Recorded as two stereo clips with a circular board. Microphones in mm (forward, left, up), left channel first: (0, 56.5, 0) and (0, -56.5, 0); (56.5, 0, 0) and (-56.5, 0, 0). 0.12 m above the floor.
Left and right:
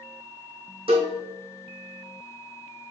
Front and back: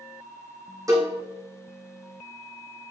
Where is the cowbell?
120° right, 4 m.